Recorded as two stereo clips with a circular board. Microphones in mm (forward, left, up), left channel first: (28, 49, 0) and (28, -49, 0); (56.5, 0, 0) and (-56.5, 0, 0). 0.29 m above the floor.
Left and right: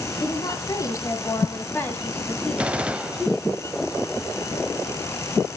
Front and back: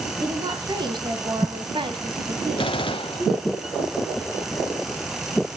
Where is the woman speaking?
135° left, 2.5 m; by 3.6 s 155° right, 1.6 m.